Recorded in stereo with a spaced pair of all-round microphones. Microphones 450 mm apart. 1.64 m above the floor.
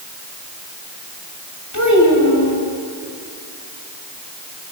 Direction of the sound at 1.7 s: 40° left (ahead or behind).